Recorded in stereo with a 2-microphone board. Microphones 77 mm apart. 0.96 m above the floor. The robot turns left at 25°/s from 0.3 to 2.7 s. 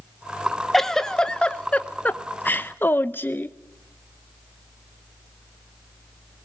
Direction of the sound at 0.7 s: 175° left.